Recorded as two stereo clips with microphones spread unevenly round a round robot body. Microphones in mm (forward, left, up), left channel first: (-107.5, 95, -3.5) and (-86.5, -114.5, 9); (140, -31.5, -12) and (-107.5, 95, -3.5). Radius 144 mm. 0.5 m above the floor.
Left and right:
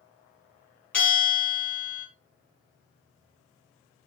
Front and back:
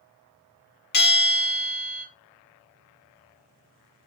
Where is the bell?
15° left, 0.9 m.